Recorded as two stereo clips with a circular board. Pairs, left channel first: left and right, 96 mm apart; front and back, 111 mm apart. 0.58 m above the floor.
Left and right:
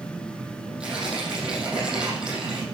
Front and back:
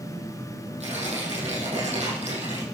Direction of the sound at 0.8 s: 170° right.